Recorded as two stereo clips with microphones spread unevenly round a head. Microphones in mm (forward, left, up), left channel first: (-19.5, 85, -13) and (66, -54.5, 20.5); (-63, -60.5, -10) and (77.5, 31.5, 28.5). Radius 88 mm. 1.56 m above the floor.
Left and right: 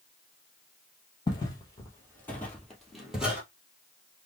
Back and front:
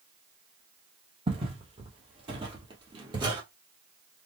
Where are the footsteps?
55° left, 2 m; by 3.4 s 5° left, 2.0 m.